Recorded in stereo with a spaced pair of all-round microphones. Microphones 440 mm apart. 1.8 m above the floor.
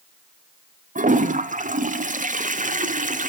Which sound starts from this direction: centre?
A toilet flushing, at 0.9 s.